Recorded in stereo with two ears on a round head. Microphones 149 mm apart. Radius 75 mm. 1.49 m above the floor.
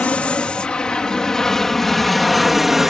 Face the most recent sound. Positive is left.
turn(degrees=0)  # may be behind; listen again after turning